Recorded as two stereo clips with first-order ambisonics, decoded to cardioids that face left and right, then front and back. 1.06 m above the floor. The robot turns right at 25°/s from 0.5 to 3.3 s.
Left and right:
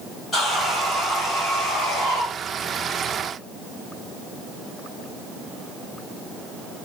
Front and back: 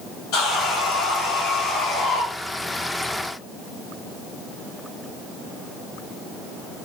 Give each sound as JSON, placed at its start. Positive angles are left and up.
{"t": 0.3, "sound": "sawing", "azimuth_deg": 15, "distance_m": 1.6}